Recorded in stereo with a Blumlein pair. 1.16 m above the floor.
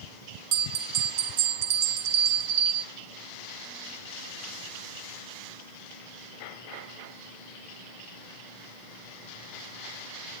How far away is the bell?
About 0.7 m.